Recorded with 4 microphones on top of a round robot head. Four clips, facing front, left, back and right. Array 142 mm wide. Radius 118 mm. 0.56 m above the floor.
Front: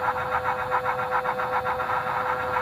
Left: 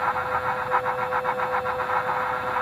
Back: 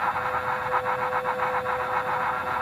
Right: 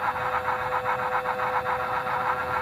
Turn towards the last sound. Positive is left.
No sound to turn to.